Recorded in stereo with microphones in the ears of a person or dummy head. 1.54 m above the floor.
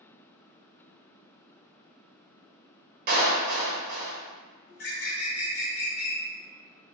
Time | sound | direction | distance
3.1 | a clap | 45° right (ahead or behind) | 1.6 m
4.7 | a bird | 45° left (ahead or behind) | 1.0 m